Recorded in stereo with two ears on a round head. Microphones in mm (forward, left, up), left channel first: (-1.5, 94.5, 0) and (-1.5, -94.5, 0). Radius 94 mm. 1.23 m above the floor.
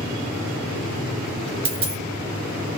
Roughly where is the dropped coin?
Right.